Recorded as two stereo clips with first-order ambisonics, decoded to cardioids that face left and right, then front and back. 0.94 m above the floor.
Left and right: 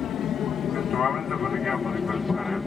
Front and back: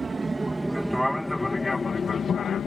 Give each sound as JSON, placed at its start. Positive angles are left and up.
{"t": 0.0, "sound": "an aircraft", "azimuth_deg": 115}